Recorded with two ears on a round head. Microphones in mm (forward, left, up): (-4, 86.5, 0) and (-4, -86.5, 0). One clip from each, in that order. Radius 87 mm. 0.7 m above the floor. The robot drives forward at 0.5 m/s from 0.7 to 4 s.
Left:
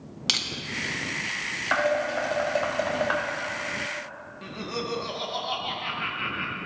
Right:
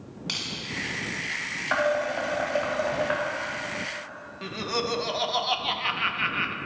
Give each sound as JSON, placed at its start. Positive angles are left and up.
{"t": 0.3, "sound": "crushing", "side_deg": 75, "distance_m": 1.3}
{"t": 1.7, "sound": "dishes clattering", "side_deg": 15, "distance_m": 2.5}
{"t": 4.4, "sound": "laughter", "side_deg": -25, "distance_m": 0.5}